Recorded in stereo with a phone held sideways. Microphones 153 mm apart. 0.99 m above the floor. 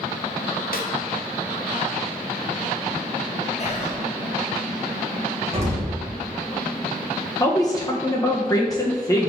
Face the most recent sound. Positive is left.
turn(degrees=25)  # may be behind; listen again after turning